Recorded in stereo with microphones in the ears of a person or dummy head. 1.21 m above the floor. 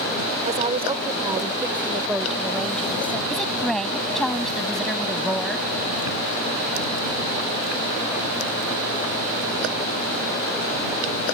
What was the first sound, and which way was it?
A woman speaking, 35° right (ahead or behind).